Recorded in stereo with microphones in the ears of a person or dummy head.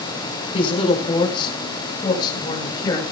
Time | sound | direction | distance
0.5 | a man speaking | 35° left (ahead or behind) | 5 m